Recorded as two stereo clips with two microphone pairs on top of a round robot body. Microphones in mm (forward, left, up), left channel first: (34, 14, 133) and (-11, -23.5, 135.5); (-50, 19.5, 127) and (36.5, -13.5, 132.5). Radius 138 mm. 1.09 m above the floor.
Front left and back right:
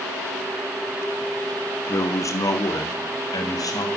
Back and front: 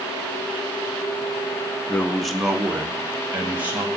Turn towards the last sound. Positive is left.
turn(degrees=50)